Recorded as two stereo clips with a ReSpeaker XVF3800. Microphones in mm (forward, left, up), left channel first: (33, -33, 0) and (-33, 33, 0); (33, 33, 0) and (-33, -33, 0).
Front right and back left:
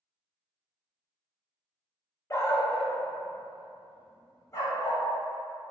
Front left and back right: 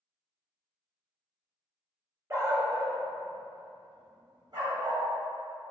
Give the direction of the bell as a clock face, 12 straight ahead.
No bell in this recording.